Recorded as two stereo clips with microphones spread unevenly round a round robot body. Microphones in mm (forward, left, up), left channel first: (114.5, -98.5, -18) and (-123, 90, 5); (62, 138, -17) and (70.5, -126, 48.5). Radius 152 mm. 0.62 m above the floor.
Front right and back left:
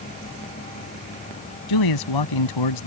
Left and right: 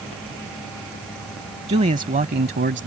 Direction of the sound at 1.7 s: 20° right.